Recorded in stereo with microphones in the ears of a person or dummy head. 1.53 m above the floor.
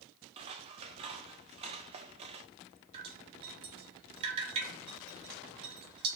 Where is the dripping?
30° right (ahead or behind), 2.5 m.